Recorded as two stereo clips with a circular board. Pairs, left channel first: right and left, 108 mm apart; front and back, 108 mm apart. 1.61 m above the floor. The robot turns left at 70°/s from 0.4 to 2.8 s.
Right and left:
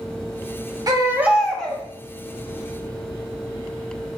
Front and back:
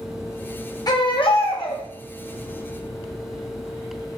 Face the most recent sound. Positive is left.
turn(degrees=-90)